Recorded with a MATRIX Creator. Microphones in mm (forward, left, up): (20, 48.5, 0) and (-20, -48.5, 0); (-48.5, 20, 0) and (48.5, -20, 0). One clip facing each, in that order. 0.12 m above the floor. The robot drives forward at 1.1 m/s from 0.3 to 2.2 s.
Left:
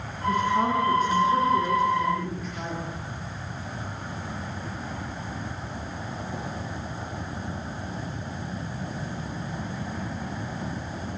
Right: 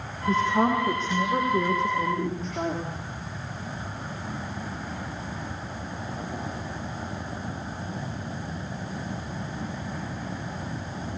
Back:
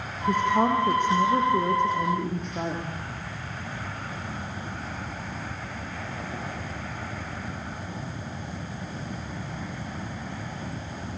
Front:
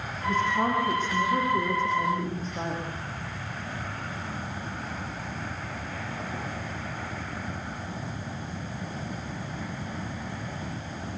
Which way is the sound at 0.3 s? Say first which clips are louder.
Right 1 dB, back 3 dB; 175° right.